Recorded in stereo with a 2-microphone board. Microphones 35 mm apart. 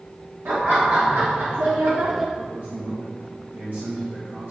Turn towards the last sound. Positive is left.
turn(degrees=-65)  # may be behind; listen again after turning